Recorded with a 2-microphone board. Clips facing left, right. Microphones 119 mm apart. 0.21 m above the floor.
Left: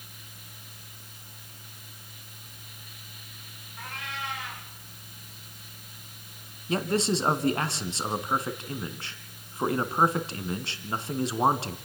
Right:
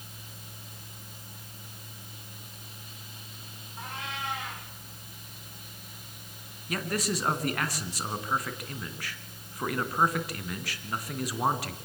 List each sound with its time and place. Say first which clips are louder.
3.8 s a cat meowing: even; 20° right (ahead or behind), 8.5 m
6.7 s a man speaking: left 5 dB; 25° left (ahead or behind), 2 m